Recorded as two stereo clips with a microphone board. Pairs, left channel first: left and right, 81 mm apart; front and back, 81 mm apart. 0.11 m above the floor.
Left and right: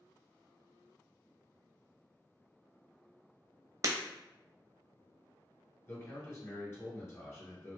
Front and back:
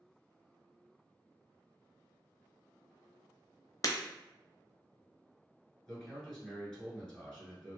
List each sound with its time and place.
3.8 s breaking glass: 45° right, 0.5 m
5.9 s a man speaking: 75° left, 1.4 m